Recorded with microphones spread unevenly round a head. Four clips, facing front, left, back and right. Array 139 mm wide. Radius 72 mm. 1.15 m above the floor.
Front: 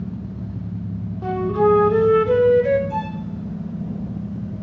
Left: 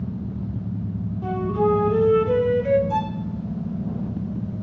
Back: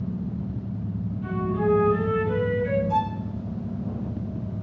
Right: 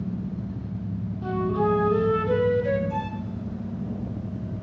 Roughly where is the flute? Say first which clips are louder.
Left 2 dB, front 7 dB; ahead.